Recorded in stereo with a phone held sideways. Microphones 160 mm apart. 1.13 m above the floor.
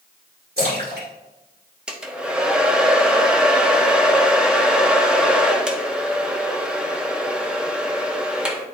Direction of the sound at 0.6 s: 80° right.